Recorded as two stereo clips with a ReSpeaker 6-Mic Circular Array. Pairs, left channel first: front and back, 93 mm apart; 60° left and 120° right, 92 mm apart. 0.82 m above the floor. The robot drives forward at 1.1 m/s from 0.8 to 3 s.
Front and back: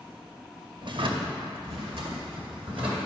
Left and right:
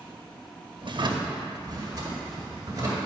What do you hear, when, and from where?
0.8 s a drawer: 145° right, 0.7 m; by 3.0 s 175° right, 3 m